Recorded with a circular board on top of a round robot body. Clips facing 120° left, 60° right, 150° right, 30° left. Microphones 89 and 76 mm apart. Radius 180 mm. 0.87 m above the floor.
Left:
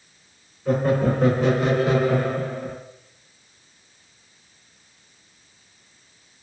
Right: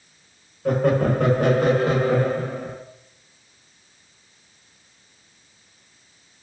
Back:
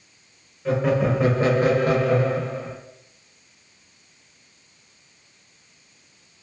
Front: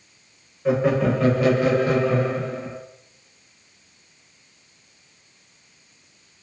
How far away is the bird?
I don't hear a bird.